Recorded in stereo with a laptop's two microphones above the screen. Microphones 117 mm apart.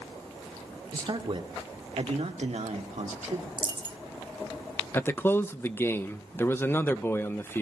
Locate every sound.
0.9 s a man speaking: 45° right (ahead or behind), 2.5 m; by 3.5 s 80° right, 2 m
3.6 s a dropped coin: 40° right (ahead or behind), 0.8 m
4.9 s a man speaking: 20° left (ahead or behind), 0.6 m